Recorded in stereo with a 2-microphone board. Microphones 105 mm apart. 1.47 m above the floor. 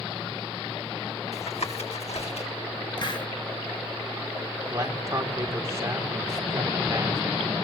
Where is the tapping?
85° left, 6 m.